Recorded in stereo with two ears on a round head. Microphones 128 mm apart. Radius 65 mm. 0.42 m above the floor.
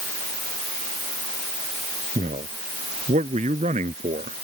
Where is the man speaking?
45° right (ahead or behind).